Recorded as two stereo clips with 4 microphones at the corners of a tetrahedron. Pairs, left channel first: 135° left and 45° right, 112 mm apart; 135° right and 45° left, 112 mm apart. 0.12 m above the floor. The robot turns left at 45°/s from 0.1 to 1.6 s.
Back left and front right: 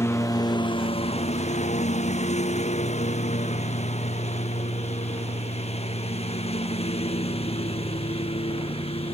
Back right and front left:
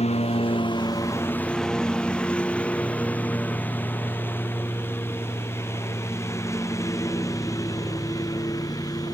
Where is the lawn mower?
160° right; by 9.2 s 165° left.